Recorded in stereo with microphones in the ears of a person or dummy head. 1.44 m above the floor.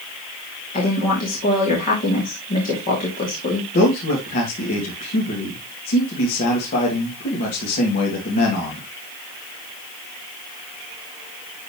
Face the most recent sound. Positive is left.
turn(degrees=45)  # may be behind; listen again after turning